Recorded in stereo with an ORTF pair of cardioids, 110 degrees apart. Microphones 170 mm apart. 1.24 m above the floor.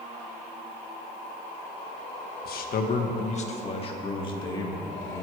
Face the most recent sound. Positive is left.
turn(degrees=20)